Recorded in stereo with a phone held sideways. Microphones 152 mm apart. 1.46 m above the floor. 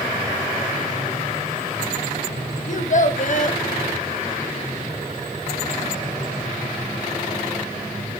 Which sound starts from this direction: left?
A child speaking, at 2.7 s.